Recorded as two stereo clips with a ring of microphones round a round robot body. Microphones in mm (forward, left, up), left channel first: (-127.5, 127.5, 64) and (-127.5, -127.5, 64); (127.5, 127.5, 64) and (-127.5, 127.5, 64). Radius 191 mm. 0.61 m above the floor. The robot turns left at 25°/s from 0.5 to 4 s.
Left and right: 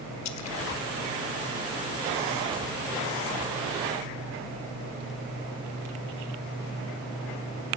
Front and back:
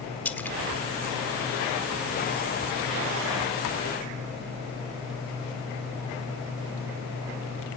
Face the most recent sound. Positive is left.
turn(degrees=-5)